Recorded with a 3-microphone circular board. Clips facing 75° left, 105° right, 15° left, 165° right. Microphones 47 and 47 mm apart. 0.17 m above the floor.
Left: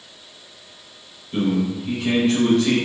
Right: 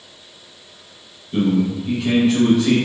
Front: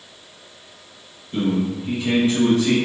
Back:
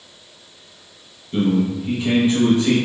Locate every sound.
1.3 s a man speaking: 175° left, 1.4 m